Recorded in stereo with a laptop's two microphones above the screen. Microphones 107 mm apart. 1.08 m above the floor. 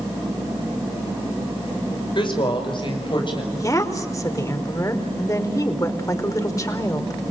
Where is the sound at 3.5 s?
30° left (ahead or behind), 4.5 m.